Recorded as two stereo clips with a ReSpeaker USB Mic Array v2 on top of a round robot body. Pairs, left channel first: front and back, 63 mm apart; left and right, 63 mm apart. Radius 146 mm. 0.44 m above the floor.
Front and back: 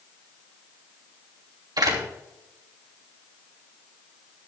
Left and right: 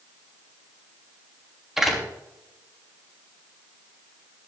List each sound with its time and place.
1.8 s a door slam: 175° right, 3 m